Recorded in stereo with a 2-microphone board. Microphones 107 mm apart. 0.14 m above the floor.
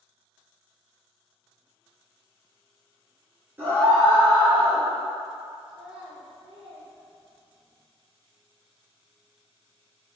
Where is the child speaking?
5° right (ahead or behind), 1.4 m.